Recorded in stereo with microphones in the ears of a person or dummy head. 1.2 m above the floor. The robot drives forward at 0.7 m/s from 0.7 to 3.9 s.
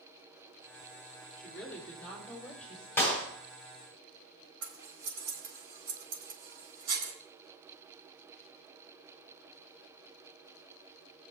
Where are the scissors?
75° right (ahead or behind), 4.5 m.